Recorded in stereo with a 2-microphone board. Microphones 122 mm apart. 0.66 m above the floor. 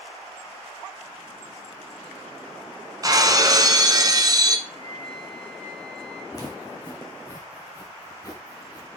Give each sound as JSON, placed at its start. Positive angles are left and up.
{"t": 3.0, "sound": "breaking glass", "side_deg": -30, "distance_m": 1.1}
{"t": 4.7, "sound": "a flute", "side_deg": 50, "distance_m": 6.5}
{"t": 6.3, "sound": "footsteps", "side_deg": 30, "distance_m": 2.0}